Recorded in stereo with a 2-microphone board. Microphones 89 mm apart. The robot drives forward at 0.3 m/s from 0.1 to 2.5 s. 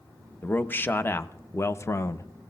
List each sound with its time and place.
0.4 s a man speaking: 20° left (ahead or behind), 0.7 m; by 2.3 s 30° left (ahead or behind), 0.5 m